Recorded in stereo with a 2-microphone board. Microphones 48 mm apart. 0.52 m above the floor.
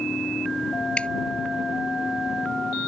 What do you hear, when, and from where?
1.0 s dripping: 25° left (ahead or behind)